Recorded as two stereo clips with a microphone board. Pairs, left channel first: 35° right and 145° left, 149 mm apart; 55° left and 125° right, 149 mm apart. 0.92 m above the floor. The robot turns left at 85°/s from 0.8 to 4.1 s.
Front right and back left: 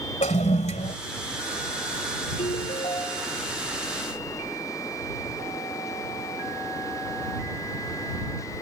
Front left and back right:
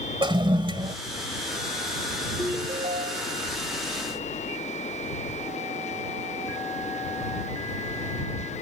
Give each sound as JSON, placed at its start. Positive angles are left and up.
{"t": 0.2, "sound": "a toilet flushing", "azimuth_deg": -70}
{"t": 2.4, "sound": "a ringtone", "azimuth_deg": -50}